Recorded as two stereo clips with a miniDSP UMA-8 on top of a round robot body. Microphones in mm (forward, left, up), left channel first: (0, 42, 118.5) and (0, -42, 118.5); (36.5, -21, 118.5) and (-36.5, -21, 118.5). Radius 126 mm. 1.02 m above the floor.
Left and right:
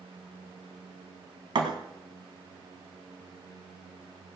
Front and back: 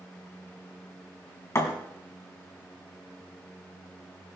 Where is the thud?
55° right, 2 m.